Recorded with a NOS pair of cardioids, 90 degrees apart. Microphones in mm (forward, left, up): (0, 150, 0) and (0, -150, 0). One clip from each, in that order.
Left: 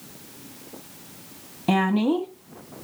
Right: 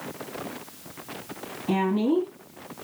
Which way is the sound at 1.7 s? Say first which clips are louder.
Left 2 dB; 55° left.